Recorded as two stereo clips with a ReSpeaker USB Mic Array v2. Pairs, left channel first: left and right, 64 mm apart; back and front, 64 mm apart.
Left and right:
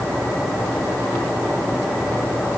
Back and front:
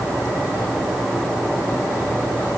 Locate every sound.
Only background noise.